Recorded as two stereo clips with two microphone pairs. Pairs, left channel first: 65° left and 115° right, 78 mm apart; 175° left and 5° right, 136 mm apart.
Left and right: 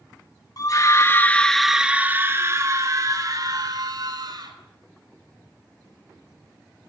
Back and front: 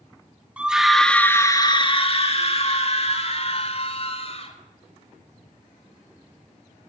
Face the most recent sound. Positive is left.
turn(degrees=-140)